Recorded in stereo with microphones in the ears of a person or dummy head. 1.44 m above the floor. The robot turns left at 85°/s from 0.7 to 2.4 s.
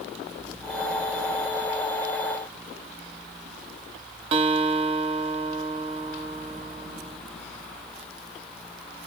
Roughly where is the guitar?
Right.